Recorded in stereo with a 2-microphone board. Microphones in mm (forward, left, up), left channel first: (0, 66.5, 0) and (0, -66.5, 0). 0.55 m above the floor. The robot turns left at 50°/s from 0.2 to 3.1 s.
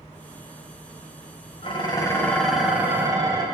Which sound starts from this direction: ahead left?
Dishes clattering, at 1.6 s.